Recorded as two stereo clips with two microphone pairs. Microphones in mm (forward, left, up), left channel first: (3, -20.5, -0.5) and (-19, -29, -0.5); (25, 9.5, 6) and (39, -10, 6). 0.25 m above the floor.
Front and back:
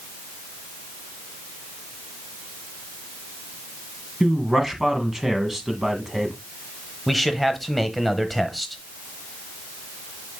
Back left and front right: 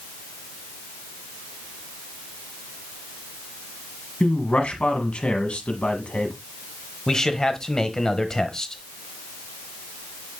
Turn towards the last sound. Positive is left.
turn(degrees=105)